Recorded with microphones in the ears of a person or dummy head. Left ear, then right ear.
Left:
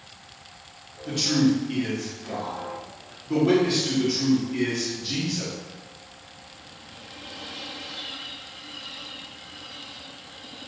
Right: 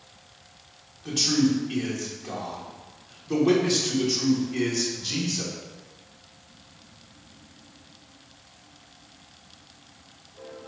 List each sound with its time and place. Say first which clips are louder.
1.1 s a man speaking: even; 15° right (ahead or behind), 1.2 m